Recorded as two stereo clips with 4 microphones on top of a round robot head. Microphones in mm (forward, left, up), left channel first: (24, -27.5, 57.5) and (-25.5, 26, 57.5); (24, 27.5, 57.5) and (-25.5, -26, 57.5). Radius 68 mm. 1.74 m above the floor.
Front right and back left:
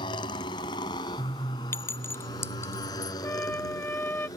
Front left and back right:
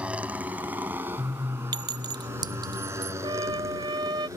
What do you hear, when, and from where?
0.0 s a motorcycle: 60° right; by 4.4 s 85° right
1.7 s a clink: 105° right
3.2 s a trumpet: 110° right